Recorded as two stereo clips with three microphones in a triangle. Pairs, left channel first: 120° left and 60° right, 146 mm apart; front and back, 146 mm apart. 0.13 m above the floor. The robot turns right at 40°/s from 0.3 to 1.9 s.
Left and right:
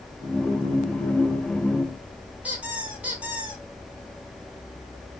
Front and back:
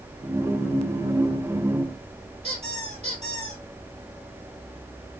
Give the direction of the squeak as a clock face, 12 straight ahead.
5 o'clock.